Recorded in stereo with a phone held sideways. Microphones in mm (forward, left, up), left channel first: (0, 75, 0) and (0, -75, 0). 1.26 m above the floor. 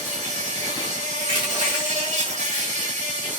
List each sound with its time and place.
0.0 s an insect: 50° right (ahead or behind), 1.4 m
1.2 s crushing: 35° right (ahead or behind), 1.3 m